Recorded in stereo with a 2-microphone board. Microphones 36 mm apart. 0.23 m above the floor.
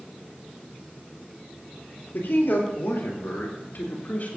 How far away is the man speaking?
About 5 m.